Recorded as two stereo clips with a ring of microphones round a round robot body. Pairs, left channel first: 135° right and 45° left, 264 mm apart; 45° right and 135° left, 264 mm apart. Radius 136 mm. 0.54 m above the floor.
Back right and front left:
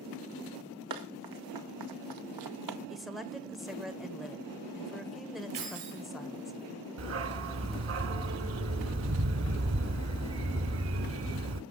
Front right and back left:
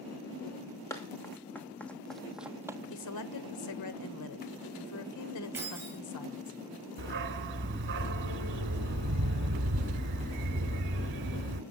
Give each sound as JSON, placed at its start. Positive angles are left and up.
{"t": 0.9, "sound": "running footsteps", "azimuth_deg": 35, "distance_m": 3.0}
{"t": 2.9, "sound": "a woman speaking", "azimuth_deg": -45, "distance_m": 1.7}
{"t": 5.5, "sound": "keys jangling", "azimuth_deg": 55, "distance_m": 10.0}
{"t": 7.0, "sound": "a dog barking", "azimuth_deg": 85, "distance_m": 1.3}